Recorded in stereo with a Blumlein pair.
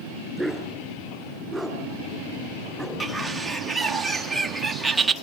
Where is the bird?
5° right, 1.5 m.